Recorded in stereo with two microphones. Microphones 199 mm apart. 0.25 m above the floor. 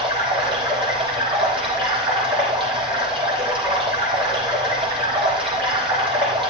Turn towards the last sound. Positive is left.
turn(degrees=-30)  # may be behind; listen again after turning